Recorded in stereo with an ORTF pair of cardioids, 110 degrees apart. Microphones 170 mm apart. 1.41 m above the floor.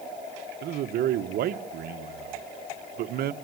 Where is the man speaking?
65° right, 1.3 m.